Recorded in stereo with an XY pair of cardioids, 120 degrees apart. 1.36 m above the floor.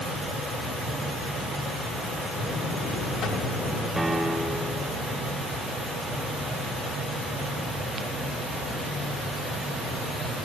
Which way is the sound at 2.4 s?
55° left.